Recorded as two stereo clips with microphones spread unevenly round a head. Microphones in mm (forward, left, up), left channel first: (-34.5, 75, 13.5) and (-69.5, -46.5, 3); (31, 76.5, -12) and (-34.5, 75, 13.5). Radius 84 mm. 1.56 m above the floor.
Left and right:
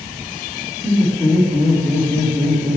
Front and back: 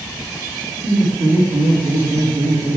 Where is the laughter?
160° left, 5 m; by 2.8 s 165° left, 3.5 m.